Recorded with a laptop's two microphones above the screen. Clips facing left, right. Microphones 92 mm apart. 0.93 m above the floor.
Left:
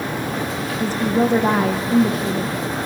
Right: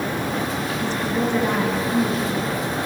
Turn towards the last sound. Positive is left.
turn(degrees=40)  # may be behind; listen again after turning